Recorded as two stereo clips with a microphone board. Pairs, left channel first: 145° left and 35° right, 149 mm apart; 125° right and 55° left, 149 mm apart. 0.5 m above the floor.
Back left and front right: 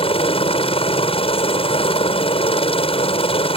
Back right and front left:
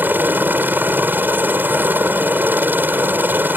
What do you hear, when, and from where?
0.0 s a helicopter: 125° left